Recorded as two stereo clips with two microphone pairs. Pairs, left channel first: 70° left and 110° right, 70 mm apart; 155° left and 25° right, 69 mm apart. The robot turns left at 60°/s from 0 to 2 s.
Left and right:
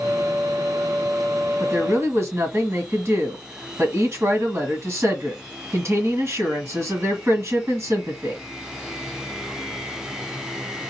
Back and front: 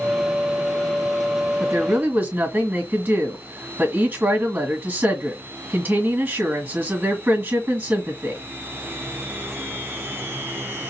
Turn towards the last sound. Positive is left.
turn(degrees=-85)